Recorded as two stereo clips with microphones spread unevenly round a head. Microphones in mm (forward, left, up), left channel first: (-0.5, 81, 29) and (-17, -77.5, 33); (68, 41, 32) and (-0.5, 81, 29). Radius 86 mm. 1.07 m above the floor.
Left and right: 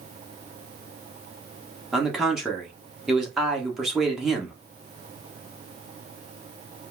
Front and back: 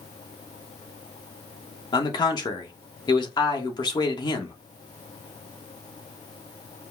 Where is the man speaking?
5° right, 1.1 m.